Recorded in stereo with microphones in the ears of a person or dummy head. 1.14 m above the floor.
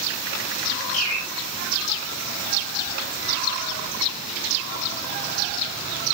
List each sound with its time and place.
0.9 s a bird: 85° left, 8 m